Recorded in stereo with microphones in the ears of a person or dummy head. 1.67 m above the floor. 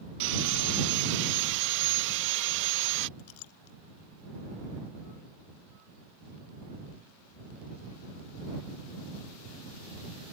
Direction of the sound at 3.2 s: 80° left.